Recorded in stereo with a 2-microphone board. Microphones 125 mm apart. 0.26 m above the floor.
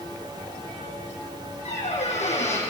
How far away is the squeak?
About 8 m.